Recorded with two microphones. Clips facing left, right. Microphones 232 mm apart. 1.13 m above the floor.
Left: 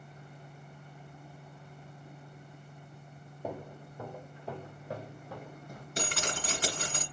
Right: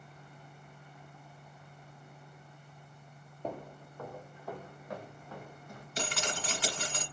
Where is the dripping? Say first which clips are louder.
Left 1 dB; 50° left (ahead or behind), 2 m.